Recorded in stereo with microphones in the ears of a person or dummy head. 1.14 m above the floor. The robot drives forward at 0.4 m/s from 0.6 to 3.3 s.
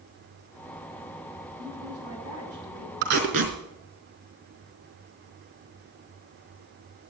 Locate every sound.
1.6 s a woman speaking: 85° right, 8 m
3.0 s tape being pulled: 60° right (ahead or behind), 3.5 m; by 3.5 s 65° right (ahead or behind), 3.5 m